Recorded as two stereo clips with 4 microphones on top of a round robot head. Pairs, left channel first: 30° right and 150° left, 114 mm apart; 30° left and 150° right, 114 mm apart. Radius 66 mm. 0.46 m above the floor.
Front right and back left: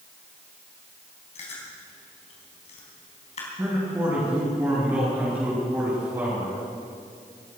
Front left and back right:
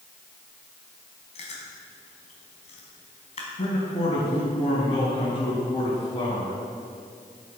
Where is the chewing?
Straight ahead, 4 m.